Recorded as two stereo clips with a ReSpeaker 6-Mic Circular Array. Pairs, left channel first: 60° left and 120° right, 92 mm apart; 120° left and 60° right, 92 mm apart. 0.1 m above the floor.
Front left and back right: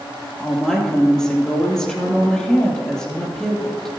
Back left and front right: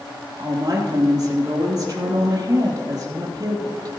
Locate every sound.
0.4 s a woman speaking: 20° right, 3.5 m